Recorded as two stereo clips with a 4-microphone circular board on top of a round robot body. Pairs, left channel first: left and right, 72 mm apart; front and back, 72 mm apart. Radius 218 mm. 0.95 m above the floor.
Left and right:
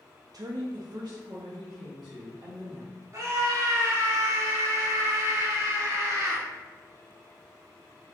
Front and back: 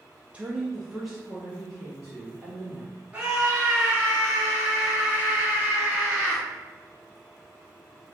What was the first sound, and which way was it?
A woman speaking, 110° right.